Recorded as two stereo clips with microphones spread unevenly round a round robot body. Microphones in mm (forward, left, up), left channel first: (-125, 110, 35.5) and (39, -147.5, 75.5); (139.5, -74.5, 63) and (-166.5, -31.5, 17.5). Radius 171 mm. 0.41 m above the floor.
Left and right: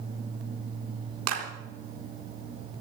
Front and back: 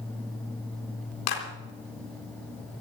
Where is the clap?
15° right, 4 m.